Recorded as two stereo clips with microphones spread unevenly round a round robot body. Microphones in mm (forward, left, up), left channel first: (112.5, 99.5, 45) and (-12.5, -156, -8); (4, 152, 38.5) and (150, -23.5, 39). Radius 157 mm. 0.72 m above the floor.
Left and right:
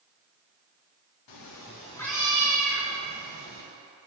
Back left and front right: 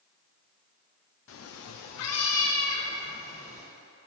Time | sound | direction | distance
1.3 | a cat meowing | 95° left | 0.6 m